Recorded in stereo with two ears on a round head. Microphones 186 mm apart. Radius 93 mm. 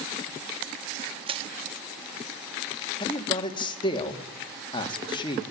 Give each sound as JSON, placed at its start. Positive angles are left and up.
{"t": 1.3, "sound": "crushing", "side_deg": -30, "distance_m": 0.8}
{"t": 3.0, "sound": "a man speaking", "side_deg": 25, "distance_m": 2.0}